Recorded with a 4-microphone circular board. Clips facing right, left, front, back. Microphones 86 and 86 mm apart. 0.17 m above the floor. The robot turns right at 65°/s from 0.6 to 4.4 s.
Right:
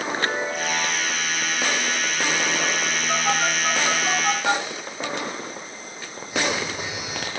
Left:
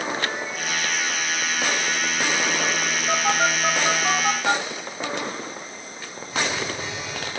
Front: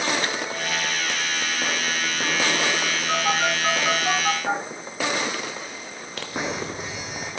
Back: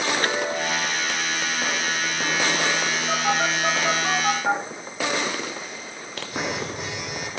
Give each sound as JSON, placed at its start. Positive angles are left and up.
{"t": 0.1, "sound": "a chime", "azimuth_deg": -145, "distance_m": 1.2}
{"t": 3.1, "sound": "a phone buzzing", "azimuth_deg": 110, "distance_m": 6.5}